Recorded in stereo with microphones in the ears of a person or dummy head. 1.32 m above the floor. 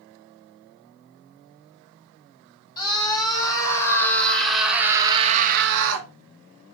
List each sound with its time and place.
2.8 s a scream: 20° left (ahead or behind), 1.8 m; by 6.1 s 75° right (ahead or behind), 0.6 m